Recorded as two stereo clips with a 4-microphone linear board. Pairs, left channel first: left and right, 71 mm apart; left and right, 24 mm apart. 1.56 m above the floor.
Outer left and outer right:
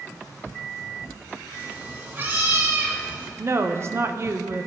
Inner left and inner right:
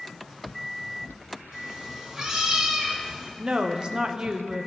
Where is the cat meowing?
30° right (ahead or behind), 2.5 m.